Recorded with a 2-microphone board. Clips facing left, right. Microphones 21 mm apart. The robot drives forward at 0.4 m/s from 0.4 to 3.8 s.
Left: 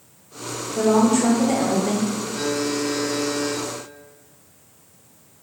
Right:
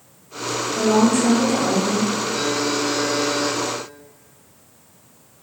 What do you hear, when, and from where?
0.8 s a woman speaking: 30° left (ahead or behind), 1.8 m; by 2.1 s 35° left (ahead or behind), 1.5 m
2.3 s a buzzer: 35° right (ahead or behind), 1.5 m; by 3.6 s 50° right (ahead or behind), 1.1 m